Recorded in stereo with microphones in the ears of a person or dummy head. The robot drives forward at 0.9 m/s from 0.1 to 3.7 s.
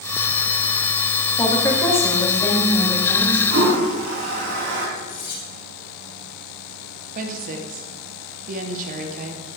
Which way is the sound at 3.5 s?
75° right (ahead or behind).